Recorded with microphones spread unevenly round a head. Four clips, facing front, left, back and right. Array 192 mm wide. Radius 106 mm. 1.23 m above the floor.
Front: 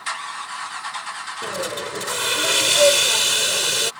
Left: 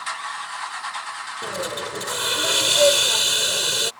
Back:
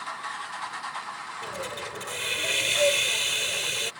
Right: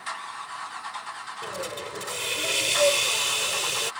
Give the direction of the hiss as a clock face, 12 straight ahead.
11 o'clock.